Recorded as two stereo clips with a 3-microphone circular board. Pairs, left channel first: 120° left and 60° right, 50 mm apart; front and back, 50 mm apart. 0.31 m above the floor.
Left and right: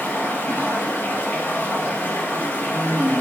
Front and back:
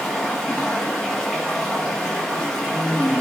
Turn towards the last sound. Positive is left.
turn(degrees=80)